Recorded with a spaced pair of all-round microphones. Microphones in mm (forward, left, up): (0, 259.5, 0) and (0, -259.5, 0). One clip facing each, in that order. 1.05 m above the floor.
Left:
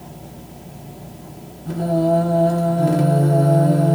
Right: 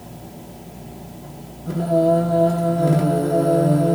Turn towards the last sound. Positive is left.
turn(degrees=15)  # may be behind; listen again after turning